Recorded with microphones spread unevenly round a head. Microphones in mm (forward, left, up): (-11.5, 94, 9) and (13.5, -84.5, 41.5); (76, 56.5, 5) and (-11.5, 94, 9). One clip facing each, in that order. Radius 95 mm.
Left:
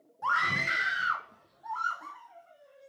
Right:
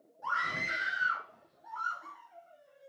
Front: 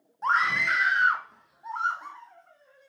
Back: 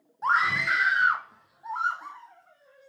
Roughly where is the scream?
Left.